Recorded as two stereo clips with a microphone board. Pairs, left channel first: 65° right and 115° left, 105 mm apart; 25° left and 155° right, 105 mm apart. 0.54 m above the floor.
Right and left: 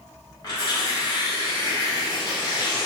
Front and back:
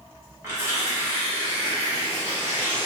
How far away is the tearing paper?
About 1.6 m.